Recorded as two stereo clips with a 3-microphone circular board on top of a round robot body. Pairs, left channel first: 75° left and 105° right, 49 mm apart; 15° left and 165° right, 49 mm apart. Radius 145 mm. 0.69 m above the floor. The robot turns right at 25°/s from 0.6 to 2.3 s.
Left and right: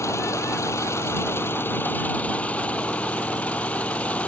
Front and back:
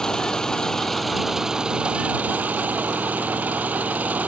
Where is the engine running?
90° left; by 4.3 s 135° left.